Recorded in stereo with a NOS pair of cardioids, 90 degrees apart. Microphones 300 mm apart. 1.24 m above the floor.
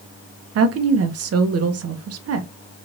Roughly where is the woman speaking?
Ahead right.